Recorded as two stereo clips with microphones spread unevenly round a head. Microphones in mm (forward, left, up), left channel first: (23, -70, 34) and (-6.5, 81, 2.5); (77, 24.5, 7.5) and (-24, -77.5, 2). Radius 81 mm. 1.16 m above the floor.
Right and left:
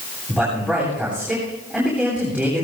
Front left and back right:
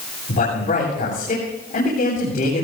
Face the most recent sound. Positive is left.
turn(degrees=20)